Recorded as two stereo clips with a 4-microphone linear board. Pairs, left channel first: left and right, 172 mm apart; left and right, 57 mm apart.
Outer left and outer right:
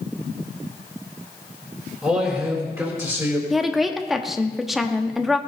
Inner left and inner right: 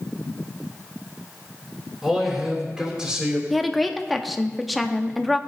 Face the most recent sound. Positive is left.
turn(degrees=0)  # may be behind; listen again after turning